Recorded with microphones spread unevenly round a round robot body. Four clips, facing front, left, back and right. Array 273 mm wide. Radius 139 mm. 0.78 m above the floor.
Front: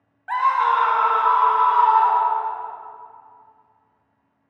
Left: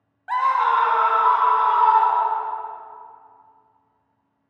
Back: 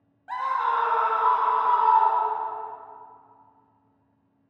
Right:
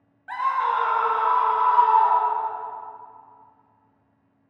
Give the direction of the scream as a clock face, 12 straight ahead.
9 o'clock.